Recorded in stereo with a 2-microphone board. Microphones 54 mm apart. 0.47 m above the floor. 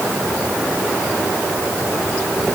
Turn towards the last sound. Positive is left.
No sound to turn to.